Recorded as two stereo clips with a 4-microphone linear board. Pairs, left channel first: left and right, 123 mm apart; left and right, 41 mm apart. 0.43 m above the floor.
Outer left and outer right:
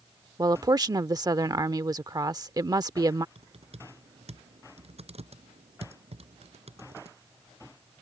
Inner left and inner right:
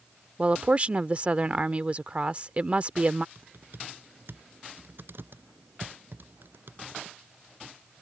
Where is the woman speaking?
30° right (ahead or behind).